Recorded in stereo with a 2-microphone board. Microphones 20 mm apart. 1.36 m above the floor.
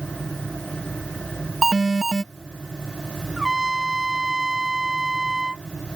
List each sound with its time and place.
1.6 s an alarm: 10° right (ahead or behind)
3.4 s a trumpet: 20° right (ahead or behind)